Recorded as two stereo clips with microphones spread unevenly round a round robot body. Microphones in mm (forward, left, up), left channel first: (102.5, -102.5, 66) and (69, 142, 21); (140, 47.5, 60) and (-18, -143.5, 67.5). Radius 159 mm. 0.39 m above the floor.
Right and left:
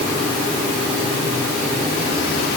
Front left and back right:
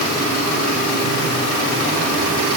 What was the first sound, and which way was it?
Only background noise.